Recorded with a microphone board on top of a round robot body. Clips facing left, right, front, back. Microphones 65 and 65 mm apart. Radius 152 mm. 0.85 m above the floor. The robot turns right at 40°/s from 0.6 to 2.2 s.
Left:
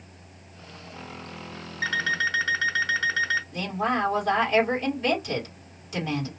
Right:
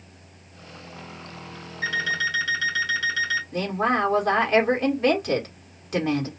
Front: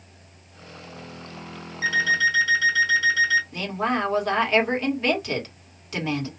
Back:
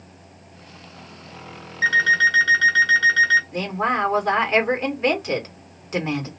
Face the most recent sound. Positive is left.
turn(degrees=-115)